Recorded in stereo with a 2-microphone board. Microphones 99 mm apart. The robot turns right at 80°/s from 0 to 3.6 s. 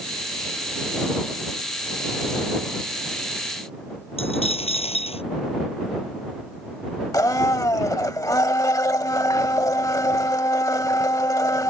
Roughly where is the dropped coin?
Left.